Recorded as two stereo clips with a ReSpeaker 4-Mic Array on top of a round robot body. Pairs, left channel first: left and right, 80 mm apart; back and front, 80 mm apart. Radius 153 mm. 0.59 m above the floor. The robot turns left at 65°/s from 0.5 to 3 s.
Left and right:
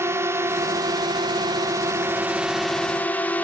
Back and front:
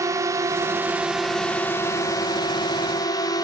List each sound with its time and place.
0.0 s a drone: 40° right; by 3.5 s 155° left